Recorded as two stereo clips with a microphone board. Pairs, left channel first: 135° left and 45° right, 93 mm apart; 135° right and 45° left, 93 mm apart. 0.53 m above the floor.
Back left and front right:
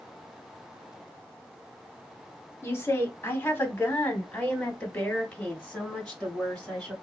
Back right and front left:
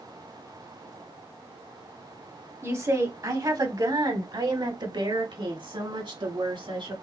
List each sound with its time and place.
2.6 s a woman speaking: 90° left, 1.5 m; by 6.9 s 55° left, 3 m